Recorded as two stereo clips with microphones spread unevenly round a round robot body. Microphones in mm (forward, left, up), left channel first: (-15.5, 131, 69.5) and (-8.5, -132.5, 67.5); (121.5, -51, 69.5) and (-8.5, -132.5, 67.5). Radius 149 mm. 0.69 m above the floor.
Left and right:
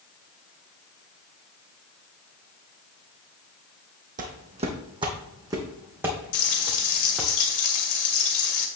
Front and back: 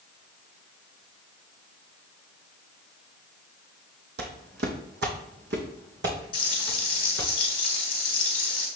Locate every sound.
4.2 s footsteps: 150° right, 1.8 m; by 7.3 s 175° right, 3.5 m
6.3 s frying: 100° left, 2.5 m